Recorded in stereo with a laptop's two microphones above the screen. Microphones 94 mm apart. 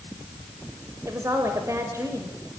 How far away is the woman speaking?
About 4 m.